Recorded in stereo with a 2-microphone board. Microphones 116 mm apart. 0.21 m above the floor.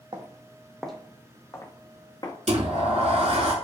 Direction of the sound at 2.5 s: 65° right (ahead or behind).